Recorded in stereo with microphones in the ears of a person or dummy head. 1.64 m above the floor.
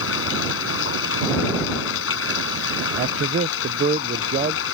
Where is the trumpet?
I don't hear a trumpet.